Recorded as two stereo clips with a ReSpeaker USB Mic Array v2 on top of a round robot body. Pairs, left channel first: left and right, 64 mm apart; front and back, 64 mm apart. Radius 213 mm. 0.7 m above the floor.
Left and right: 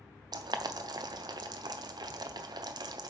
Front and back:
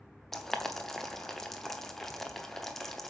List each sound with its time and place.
0.3 s boiling: 85° right, 0.7 m